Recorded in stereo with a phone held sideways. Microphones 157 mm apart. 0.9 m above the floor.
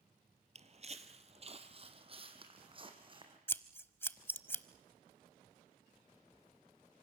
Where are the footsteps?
45° right (ahead or behind), 1.2 m; by 3.4 s 30° right (ahead or behind), 3 m.